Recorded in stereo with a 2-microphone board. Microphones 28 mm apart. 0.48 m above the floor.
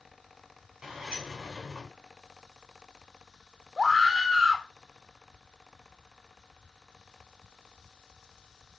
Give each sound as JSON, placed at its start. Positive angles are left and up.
{"t": 0.8, "sound": "a sliding door", "side_deg": -20, "distance_m": 4.5}
{"t": 3.8, "sound": "a scream", "side_deg": -5, "distance_m": 1.4}